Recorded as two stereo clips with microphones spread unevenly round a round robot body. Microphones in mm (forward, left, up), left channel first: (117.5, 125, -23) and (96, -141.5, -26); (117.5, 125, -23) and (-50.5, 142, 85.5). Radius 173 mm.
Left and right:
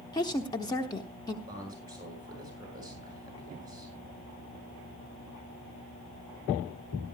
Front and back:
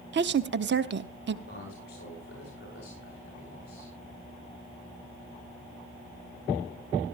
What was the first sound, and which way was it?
A woman speaking, 145° left.